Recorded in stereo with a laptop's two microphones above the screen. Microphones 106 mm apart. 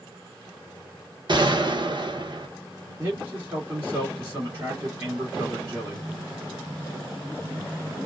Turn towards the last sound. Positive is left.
turn(degrees=-20)  # may be behind; listen again after turning